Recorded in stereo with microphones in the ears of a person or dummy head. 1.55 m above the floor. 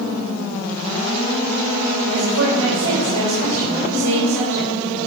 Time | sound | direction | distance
2.0 | a woman speaking | 85° right | 4 m